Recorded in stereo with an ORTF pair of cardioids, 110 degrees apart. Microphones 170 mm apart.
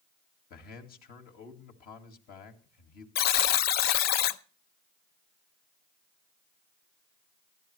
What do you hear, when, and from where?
0.5 s a man speaking: 65° left, 2 m
3.1 s a buzzer: 65° left, 0.6 m